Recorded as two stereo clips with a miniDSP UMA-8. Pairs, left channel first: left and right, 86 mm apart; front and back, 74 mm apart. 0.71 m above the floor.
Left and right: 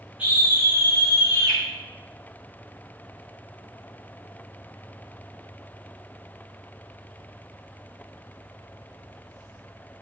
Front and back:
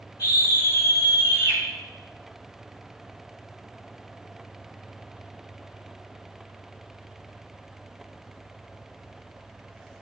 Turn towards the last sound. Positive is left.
turn(degrees=-35)